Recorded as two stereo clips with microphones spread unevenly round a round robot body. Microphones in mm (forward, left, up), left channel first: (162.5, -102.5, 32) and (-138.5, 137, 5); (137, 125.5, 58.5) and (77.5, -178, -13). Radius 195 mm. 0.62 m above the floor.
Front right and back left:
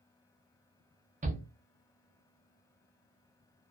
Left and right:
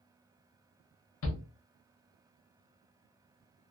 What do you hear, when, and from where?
1.2 s a shout: 100° left, 0.7 m